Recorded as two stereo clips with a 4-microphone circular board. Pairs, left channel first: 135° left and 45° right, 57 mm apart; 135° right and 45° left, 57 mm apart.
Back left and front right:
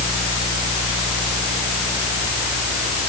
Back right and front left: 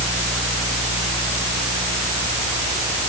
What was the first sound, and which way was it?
Only background noise.